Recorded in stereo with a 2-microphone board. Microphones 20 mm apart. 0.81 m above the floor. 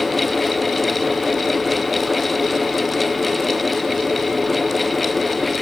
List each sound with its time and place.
Only background noise.